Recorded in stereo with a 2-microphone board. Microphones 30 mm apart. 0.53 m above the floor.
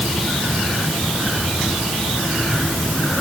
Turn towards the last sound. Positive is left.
No sound to turn to.